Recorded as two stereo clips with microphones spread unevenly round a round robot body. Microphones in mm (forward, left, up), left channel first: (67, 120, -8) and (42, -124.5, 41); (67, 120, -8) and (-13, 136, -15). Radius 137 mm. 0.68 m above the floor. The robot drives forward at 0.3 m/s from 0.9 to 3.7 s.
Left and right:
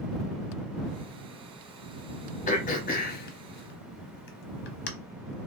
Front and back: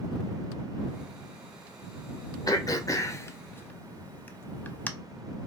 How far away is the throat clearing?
About 0.8 m.